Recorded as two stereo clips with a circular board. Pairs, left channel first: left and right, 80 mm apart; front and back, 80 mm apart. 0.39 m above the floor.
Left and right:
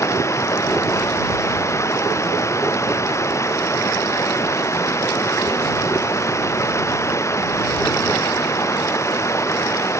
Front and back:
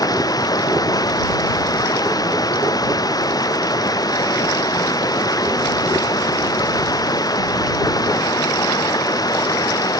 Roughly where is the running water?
Ahead left.